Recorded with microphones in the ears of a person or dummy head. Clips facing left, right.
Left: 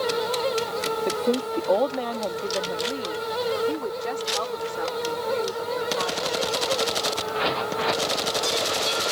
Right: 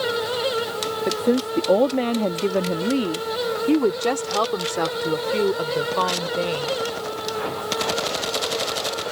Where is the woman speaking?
10° right (ahead or behind); by 6.8 s 85° right.